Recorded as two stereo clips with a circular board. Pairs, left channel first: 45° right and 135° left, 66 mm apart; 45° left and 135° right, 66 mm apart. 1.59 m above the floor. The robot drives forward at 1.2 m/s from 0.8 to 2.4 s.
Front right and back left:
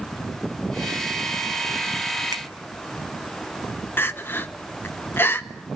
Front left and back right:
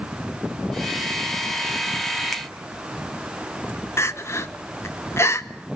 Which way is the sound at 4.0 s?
5° left.